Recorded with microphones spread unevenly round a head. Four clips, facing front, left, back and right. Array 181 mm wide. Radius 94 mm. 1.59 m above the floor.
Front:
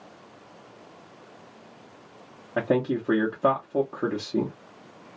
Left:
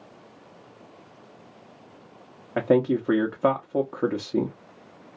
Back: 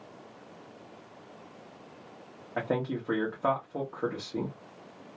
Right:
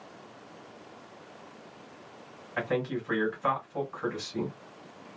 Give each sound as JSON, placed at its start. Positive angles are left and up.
{"t": 2.6, "sound": "a man speaking", "azimuth_deg": 50, "distance_m": 0.9}